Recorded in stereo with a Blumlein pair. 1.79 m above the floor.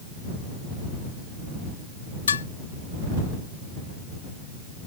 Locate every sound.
2.3 s dishes clattering: 70° left